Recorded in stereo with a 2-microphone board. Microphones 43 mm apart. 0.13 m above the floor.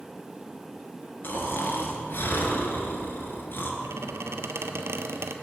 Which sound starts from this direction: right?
A squeak, at 3.8 s.